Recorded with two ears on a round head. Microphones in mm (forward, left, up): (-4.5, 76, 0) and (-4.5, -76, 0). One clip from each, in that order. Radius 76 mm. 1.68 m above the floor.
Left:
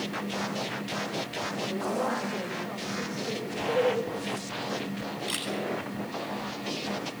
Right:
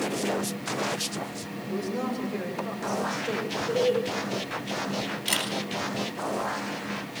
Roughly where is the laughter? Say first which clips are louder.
Right 1 dB; right.